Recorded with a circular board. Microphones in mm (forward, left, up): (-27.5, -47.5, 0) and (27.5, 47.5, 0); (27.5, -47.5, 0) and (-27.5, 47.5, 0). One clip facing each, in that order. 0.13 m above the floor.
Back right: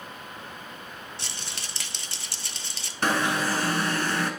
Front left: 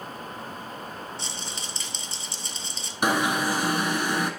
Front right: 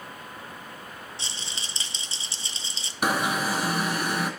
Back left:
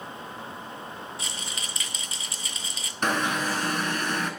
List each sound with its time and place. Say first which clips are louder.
1.2 s a rattle: front left 3 dB, back left 2 dB; 120° right, 0.6 m
3.0 s an alarm: front left 1 dB, front right 1 dB; 5° left, 1.1 m